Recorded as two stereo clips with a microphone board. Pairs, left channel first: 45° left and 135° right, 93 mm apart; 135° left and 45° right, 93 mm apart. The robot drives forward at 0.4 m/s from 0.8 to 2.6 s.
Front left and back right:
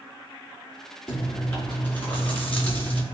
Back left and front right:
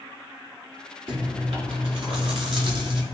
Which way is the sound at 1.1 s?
25° right.